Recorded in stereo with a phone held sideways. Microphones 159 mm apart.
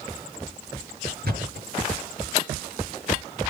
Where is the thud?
80° right, 7.5 m.